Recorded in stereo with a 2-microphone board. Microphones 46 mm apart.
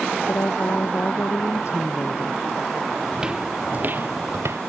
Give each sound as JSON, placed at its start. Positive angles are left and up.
{"t": 0.3, "sound": "a woman speaking", "side_deg": 75}
{"t": 3.1, "sound": "footsteps", "side_deg": -15}